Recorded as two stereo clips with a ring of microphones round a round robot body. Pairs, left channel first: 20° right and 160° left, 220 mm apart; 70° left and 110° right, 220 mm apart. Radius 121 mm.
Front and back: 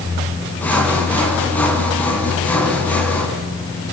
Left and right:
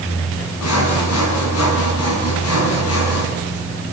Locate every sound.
0.6 s sawing: 60° left, 5 m